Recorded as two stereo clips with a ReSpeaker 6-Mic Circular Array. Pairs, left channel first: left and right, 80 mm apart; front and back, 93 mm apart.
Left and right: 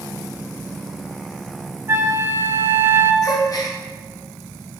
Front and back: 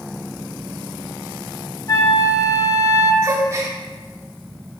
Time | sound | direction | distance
1.9 | a flute | 40° right | 0.6 m
3.2 | a gasp | 125° left | 0.9 m